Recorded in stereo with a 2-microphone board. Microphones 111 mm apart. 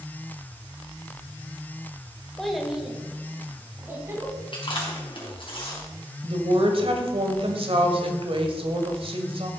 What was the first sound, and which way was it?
A child speaking, 5° left (ahead or behind).